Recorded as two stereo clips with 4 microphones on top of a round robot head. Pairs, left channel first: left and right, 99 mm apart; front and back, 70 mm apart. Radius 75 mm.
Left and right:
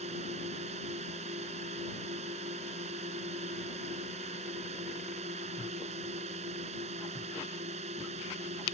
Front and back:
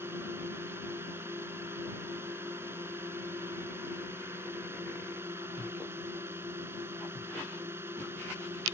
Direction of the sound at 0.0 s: 110° right.